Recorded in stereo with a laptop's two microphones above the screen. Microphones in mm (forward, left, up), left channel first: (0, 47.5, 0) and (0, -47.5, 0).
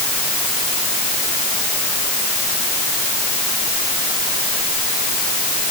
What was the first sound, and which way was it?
Only background noise.